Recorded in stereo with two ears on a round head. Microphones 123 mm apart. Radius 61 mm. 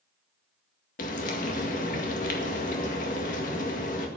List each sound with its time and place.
1.0 s frying: 65° left (ahead or behind), 1.9 m